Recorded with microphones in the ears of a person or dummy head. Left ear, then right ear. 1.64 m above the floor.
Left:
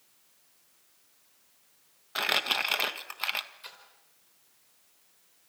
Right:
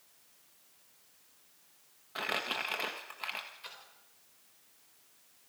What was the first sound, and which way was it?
Crumpling, 35° left (ahead or behind).